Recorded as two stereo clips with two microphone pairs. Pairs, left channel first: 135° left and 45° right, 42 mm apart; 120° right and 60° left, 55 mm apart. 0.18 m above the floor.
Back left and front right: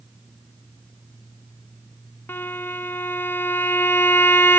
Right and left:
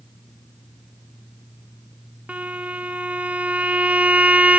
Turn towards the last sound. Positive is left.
turn(degrees=125)